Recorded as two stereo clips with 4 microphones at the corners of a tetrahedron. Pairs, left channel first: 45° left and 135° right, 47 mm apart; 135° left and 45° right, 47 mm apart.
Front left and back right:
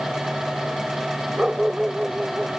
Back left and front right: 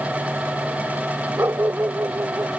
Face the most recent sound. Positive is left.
turn(degrees=-55)